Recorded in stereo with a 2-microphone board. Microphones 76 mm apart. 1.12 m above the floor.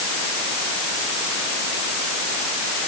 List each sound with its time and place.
Only background noise.